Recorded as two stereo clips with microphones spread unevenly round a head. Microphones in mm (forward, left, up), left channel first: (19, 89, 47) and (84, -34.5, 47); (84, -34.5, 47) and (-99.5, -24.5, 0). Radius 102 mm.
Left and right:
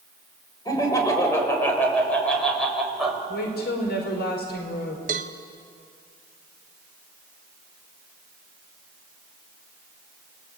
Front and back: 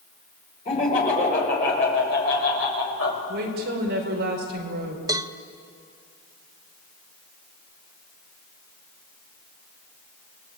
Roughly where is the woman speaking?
Behind left.